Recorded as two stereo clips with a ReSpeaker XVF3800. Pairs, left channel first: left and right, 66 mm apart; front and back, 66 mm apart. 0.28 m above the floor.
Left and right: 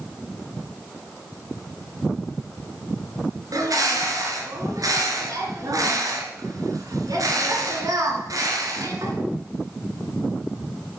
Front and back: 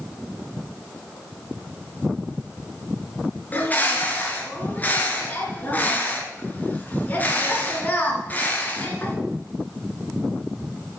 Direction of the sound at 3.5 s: 65° right.